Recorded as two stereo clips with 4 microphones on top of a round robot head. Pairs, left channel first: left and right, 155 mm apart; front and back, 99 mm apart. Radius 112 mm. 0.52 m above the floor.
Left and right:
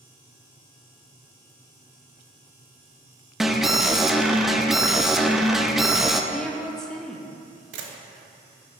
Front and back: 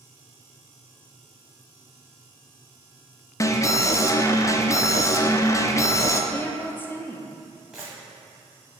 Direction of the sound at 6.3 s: 10° left.